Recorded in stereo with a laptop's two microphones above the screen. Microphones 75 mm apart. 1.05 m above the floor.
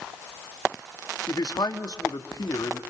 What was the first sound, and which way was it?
A man speaking, 65° left (ahead or behind).